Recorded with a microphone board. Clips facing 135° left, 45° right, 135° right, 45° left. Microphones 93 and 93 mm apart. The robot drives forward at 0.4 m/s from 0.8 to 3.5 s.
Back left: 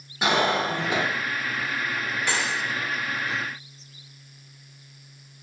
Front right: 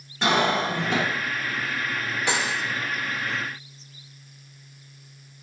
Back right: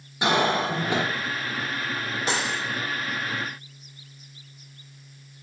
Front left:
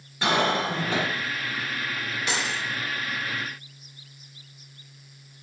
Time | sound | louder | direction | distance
0.2 | a cough | front right 1 dB, back right 1 dB | 165° right | 1.2 m
2.3 | cutlery clinking | front right 2 dB, back right 2 dB | 110° right | 0.6 m